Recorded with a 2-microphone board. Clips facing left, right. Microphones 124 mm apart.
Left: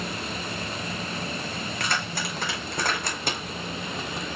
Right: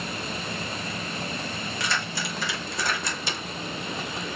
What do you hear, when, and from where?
1.8 s keys jangling: 55° left (ahead or behind), 5.5 m